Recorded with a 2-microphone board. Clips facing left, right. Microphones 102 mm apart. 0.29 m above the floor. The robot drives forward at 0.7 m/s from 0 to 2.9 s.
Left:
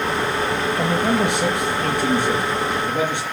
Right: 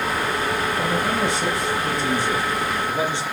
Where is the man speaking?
65° left (ahead or behind), 6.5 m; by 3.2 s 55° left (ahead or behind), 7 m.